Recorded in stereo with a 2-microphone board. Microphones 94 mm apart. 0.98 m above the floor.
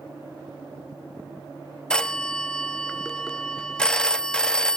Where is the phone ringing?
10° left (ahead or behind), 0.8 m.